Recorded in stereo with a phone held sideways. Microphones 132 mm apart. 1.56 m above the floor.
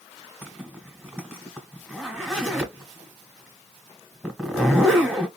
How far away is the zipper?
About 1.7 m.